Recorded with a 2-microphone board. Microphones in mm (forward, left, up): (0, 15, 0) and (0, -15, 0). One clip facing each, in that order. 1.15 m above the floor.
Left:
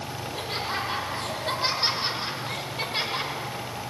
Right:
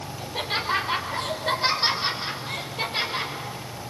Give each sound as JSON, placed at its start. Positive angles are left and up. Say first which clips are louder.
{"t": 0.2, "sound": "laughter", "louder": "right 5 dB", "side_deg": -35, "distance_m": 5.0}